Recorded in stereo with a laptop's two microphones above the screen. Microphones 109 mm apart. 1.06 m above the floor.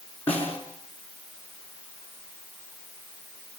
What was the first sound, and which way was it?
A snare drum, 15° left (ahead or behind).